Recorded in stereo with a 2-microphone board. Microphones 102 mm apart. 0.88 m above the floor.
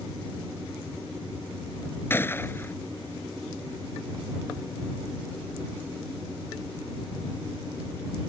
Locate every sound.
2.1 s a gunshot: 20° left (ahead or behind)